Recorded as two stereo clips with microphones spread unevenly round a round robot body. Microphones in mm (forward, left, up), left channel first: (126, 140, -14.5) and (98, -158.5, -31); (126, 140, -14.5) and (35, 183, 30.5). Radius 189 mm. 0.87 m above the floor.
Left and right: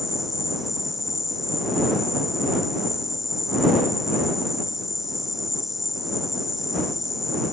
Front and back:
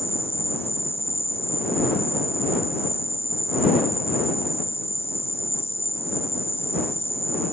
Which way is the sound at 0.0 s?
5° right.